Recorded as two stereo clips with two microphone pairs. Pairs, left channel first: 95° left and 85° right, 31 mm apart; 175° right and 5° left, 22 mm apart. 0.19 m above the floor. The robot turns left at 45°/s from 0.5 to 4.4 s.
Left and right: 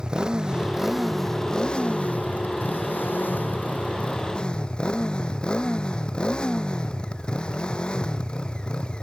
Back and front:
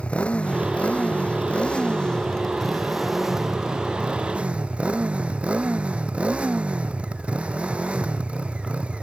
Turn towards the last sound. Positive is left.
turn(degrees=30)